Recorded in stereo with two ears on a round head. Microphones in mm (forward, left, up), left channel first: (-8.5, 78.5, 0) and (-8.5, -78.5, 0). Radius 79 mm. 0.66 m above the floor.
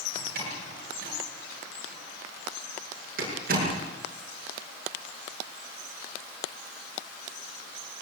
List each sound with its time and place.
0.1 s a door slam: 50° right (ahead or behind), 8 m